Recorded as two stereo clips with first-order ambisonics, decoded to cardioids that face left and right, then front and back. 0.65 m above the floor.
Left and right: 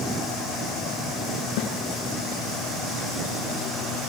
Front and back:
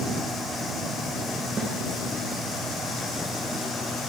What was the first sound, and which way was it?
A snare drum, 100° left.